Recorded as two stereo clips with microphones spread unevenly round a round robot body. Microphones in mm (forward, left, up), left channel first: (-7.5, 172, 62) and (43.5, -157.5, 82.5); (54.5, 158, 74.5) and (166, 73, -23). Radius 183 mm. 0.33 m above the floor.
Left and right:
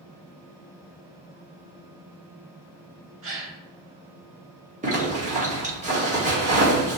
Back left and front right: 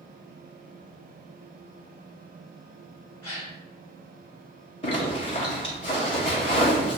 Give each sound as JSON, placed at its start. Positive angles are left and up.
{"t": 3.2, "sound": "a gasp", "azimuth_deg": -95, "distance_m": 1.5}
{"t": 4.8, "sound": "a zipper", "azimuth_deg": -120, "distance_m": 1.5}